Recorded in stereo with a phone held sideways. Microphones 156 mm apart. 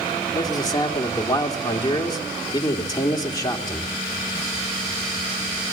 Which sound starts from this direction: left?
A man speaking, at 0.3 s.